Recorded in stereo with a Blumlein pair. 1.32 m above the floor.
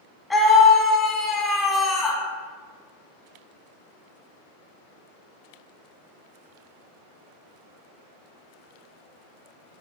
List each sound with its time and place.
0.3 s a scream: 10° left, 1.0 m